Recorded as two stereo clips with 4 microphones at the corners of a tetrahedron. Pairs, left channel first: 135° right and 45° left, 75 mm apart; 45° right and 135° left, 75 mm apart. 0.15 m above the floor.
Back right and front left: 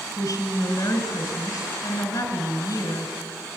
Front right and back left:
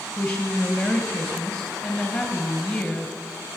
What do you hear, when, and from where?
0.2 s a woman speaking: 125° right, 2.5 m